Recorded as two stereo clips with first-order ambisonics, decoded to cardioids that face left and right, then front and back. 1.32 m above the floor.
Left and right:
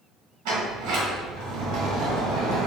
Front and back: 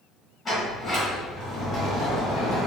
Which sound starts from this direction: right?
A sliding door, at 0.5 s.